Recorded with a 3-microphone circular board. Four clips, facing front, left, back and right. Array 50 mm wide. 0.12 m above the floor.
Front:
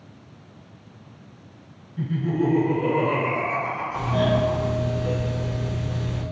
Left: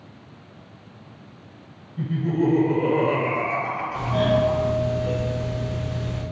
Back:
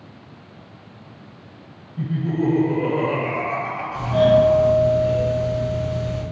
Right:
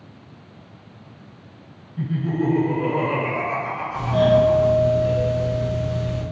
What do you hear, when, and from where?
2.0 s laughter: 75° right, 1.8 m; by 4.7 s 155° left, 1.9 m
3.9 s a doorbell: 165° right, 1.6 m